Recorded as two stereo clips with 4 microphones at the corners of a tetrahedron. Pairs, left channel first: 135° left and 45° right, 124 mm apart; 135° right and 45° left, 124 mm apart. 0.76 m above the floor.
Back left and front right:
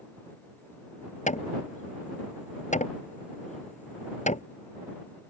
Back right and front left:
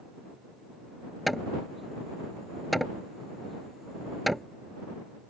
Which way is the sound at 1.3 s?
135° left.